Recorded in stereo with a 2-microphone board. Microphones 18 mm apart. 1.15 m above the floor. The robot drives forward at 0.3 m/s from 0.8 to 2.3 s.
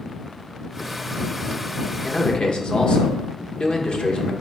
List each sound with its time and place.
2.0 s a man speaking: 60° left (ahead or behind), 1.3 m; by 4.3 s 65° left (ahead or behind), 1.2 m